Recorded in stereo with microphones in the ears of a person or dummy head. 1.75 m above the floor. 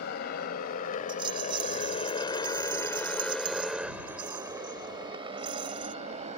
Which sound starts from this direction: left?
A motorcycle, at 0.0 s.